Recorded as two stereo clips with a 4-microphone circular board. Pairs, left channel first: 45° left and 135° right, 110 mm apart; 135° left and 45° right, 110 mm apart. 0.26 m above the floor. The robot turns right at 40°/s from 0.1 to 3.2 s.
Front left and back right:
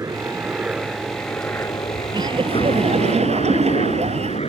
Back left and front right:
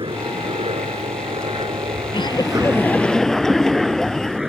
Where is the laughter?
175° left; by 4.4 s 140° right.